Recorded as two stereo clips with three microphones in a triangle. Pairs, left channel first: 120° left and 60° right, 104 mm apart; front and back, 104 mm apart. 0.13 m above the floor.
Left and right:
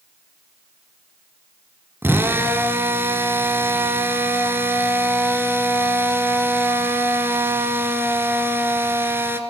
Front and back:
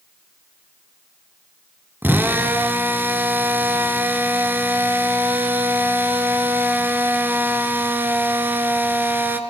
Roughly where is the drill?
Behind right.